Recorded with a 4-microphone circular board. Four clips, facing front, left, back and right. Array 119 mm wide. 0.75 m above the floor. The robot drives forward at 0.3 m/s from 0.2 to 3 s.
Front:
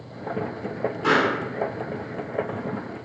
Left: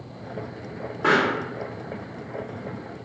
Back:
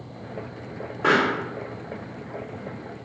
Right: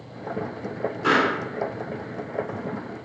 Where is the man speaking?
I don't hear a man speaking.